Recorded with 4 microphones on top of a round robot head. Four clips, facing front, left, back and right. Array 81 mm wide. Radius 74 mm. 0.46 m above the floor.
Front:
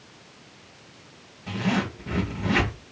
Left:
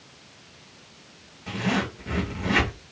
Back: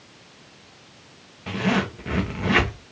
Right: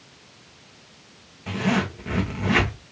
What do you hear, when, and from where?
1.5 s a zipper: 155° right, 2 m